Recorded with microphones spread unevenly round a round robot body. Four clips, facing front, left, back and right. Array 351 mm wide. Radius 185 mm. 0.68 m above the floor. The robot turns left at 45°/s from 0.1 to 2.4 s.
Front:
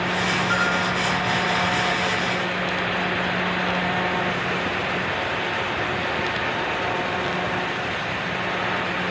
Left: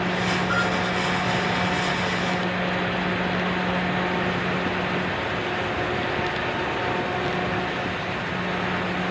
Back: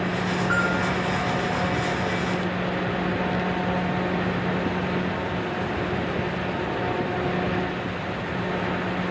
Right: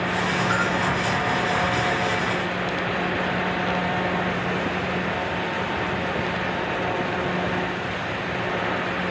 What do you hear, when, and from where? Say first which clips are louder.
0.5 s a bell: right 1 dB, even; 115° right, 5.5 m; by 0.9 s 130° right, 5.5 m